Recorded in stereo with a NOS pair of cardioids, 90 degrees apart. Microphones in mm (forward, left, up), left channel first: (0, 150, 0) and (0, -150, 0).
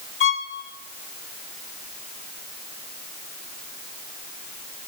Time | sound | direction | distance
0.2 | a violin | 45° left | 1.0 m